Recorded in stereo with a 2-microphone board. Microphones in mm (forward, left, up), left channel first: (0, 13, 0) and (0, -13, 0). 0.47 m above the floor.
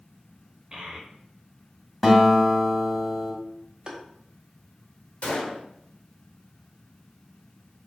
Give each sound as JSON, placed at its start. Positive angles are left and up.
{"t": 0.7, "sound": "a child speaking", "side_deg": -40, "distance_m": 1.5}
{"t": 2.0, "sound": "a guitar", "side_deg": -5, "distance_m": 1.3}
{"t": 3.9, "sound": "tapping", "side_deg": -30, "distance_m": 0.7}
{"t": 5.2, "sound": "a gunshot", "side_deg": 55, "distance_m": 1.1}